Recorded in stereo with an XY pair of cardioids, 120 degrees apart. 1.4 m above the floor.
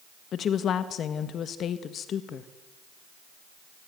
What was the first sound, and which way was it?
A woman speaking, 50° left.